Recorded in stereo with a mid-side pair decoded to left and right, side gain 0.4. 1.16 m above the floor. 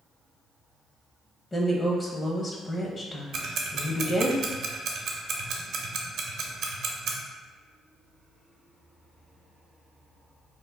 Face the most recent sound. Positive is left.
turn(degrees=-70)